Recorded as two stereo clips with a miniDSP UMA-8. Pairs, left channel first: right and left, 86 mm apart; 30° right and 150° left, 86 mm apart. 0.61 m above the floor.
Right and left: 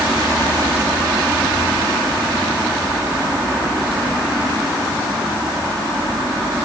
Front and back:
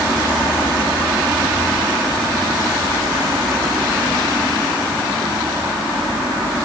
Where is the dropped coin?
No dropped coin in this recording.